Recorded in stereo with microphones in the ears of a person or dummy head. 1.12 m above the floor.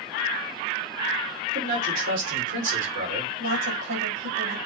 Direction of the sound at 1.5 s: 75° right (ahead or behind).